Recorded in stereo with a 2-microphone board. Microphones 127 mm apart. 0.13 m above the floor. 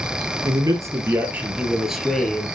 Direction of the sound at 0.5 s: 30° right (ahead or behind).